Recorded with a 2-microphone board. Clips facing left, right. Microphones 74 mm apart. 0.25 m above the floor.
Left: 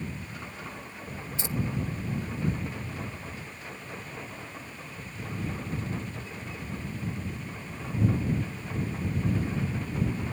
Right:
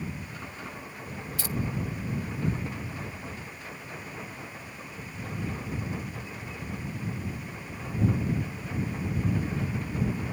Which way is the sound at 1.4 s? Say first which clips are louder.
Left 1 dB; 25° left (ahead or behind).